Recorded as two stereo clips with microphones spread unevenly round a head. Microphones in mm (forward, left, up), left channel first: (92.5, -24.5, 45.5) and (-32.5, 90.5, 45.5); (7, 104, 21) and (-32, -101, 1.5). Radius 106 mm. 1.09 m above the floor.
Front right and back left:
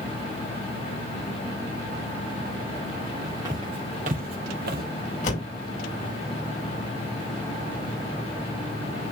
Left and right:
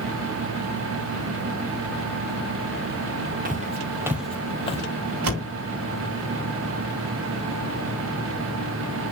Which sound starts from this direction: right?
A door slam, at 5.2 s.